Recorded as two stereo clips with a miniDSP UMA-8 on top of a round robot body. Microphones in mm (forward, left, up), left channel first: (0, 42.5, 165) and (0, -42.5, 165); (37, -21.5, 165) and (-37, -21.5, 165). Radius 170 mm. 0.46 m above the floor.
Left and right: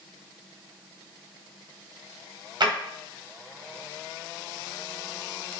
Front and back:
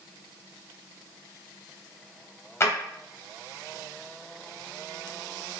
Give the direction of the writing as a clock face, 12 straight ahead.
I don't hear writing.